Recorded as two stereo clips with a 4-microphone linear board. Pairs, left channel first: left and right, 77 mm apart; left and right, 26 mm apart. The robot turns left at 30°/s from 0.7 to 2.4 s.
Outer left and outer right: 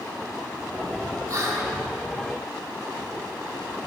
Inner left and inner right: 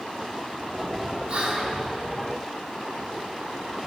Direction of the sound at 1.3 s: 45° right (ahead or behind).